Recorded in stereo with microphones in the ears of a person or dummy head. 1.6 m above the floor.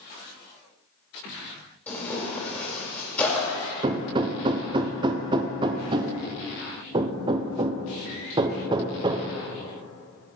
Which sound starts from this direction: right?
Hammering, at 3.8 s.